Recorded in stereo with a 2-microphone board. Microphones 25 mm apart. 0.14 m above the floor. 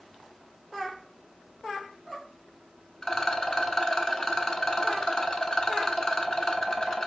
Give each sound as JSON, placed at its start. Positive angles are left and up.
{"t": 3.0, "sound": "a rattle", "side_deg": 25, "distance_m": 0.6}